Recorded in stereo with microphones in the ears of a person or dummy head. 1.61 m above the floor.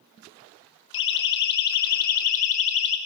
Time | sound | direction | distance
0.9 | a siren | 60° left (ahead or behind) | 3 m